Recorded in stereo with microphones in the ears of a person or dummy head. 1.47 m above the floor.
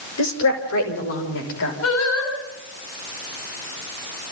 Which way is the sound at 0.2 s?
85° left.